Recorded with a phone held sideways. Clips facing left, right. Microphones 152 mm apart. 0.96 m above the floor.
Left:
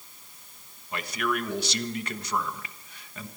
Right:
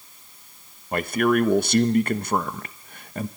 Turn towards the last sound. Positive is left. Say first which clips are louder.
# right 9 dB
turn(degrees=-50)  # may be behind; listen again after turning